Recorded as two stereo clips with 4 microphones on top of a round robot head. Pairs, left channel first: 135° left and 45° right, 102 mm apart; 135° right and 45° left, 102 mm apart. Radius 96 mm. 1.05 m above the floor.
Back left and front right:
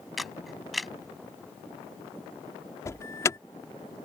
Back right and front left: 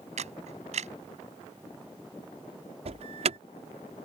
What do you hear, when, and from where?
0.2 s a camera shutter: 45° left
2.9 s an alarm: 70° left